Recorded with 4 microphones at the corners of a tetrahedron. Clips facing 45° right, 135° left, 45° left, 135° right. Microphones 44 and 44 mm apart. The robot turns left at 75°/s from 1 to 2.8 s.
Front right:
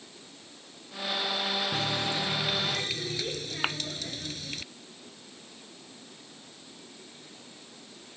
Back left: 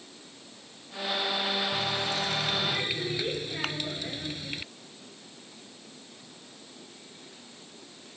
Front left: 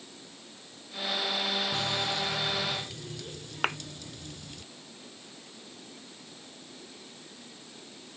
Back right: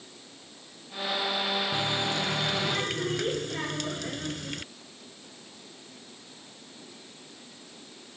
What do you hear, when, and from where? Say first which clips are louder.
1.7 s a running tap: even, back right 2 dB; 70° right; by 4.6 s 150° right
3.6 s a thud: front right 5 dB, front left 5 dB; 25° left